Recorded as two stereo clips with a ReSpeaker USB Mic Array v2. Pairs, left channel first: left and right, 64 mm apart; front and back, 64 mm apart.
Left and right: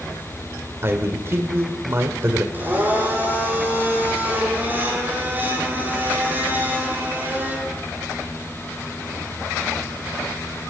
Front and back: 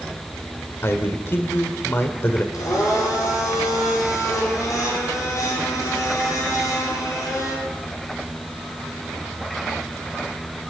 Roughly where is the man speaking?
Ahead right.